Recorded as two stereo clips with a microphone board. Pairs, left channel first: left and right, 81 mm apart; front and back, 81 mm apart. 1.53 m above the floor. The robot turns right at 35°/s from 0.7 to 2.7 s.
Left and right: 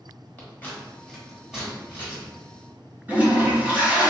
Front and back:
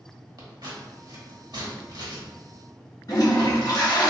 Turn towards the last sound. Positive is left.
turn(degrees=-25)